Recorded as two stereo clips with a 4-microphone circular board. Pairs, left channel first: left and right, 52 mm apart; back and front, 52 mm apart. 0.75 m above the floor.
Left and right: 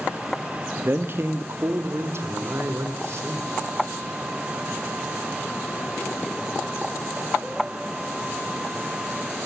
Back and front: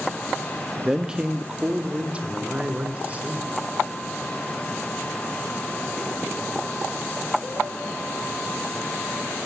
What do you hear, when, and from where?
0.8 s a man speaking: 75° right, 1.4 m; by 3.5 s 60° right, 4 m